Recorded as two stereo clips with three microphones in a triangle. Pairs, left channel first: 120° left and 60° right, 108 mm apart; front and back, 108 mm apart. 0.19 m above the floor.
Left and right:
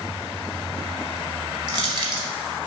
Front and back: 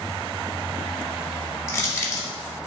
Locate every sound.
1.7 s crushing: 50° right, 1.0 m